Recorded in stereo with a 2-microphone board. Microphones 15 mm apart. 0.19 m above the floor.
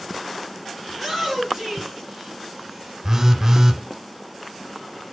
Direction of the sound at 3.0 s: 25° right (ahead or behind).